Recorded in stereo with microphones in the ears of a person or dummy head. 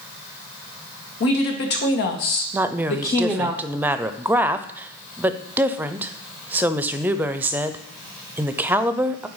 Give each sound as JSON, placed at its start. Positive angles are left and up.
{"t": 1.2, "sound": "a woman speaking", "side_deg": 55, "distance_m": 2.0}
{"t": 2.5, "sound": "a woman speaking", "side_deg": -5, "distance_m": 0.5}